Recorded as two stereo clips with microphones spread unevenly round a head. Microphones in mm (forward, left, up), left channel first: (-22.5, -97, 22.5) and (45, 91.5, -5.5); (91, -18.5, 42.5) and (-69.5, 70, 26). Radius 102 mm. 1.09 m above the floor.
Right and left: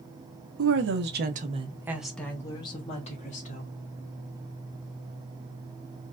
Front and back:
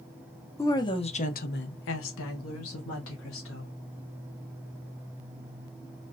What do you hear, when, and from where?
0.6 s a woman speaking: 50° left, 1.1 m; by 3.7 s 55° right, 1.9 m